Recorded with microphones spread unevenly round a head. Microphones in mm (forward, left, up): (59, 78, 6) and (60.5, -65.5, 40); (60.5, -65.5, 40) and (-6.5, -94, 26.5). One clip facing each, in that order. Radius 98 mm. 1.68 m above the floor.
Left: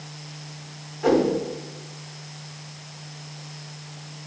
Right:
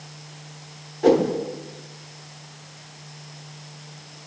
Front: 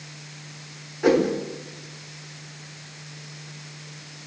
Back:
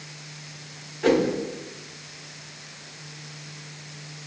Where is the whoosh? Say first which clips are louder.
Right 2 dB, front 1 dB; 45° right, 1.6 m.